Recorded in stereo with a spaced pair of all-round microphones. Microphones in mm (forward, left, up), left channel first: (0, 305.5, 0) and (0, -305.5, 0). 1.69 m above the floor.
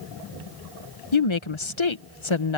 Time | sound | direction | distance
1.1 | a woman speaking | 50° left (ahead or behind) | ?